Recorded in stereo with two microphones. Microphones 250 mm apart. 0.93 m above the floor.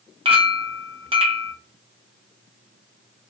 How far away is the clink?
About 0.6 m.